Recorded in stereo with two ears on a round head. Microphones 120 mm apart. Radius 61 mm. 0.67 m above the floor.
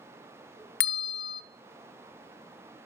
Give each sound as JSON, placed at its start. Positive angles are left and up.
{"t": 0.8, "sound": "a bell", "side_deg": 85, "distance_m": 0.5}